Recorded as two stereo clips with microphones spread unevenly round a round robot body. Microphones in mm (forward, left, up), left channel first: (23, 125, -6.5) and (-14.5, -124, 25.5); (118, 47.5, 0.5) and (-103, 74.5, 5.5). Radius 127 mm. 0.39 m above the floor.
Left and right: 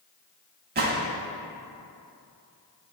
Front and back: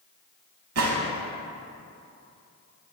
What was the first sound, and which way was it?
A gunshot, 155° right.